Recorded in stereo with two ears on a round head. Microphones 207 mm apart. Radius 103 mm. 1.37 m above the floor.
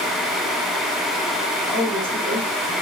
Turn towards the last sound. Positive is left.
turn(degrees=5)  # may be behind; listen again after turning